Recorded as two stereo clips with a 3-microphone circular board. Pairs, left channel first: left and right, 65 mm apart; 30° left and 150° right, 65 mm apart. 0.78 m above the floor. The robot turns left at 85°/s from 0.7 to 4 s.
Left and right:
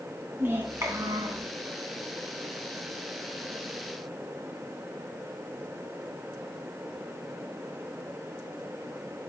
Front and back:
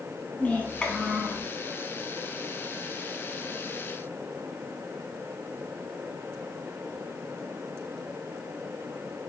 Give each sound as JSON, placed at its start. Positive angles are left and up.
{"t": 0.4, "sound": "a child speaking", "azimuth_deg": -35, "distance_m": 3.5}